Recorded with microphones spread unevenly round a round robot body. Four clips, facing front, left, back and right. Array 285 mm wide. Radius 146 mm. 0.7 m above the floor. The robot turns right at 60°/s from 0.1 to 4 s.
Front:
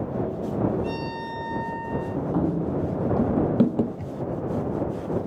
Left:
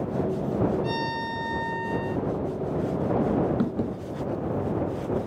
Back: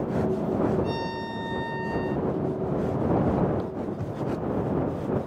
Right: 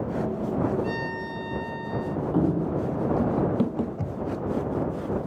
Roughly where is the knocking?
Right.